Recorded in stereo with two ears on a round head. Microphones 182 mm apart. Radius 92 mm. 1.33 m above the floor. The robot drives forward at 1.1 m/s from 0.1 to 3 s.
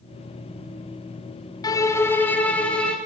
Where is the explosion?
No explosion in this recording.